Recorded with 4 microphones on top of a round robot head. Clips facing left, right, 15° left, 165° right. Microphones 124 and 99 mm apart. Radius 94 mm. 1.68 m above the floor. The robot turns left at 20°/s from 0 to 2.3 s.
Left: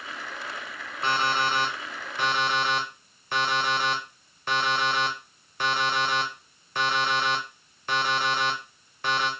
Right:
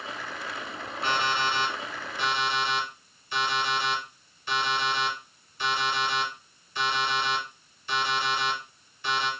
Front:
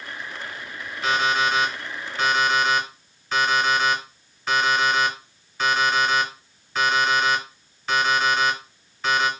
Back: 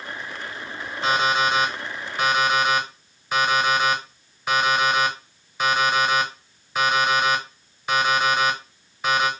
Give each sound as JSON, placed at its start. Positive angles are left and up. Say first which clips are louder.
{"t": 1.0, "sound": "an alarm clock", "louder": "left 2 dB, back 1 dB", "azimuth_deg": 145, "distance_m": 0.9}